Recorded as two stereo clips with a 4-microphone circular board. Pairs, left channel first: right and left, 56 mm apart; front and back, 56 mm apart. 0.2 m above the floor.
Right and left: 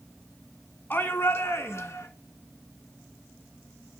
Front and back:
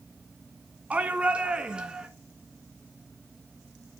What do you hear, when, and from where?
0.9 s a shout: 125° right, 1.7 m; by 2.1 s 105° right, 2.5 m